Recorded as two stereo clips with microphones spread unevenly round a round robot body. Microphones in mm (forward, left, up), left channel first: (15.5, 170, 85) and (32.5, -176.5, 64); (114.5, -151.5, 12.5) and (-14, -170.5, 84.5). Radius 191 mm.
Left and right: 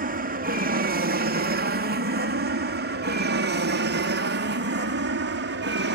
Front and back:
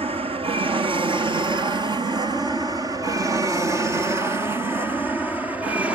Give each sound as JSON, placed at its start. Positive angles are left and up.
{"t": 0.0, "sound": "an aircraft", "azimuth_deg": -115}